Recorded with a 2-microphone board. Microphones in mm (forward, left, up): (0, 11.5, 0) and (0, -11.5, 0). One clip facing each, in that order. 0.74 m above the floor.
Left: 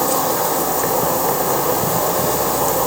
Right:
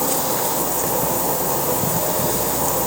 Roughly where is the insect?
Left.